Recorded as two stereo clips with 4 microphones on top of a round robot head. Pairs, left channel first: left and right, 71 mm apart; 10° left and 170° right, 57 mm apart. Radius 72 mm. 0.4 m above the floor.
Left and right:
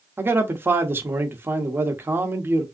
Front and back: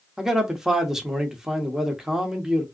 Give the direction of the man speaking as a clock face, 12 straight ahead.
3 o'clock.